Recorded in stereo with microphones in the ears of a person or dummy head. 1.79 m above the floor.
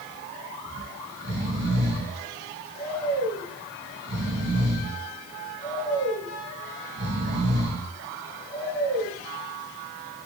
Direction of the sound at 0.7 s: 60° right (ahead or behind).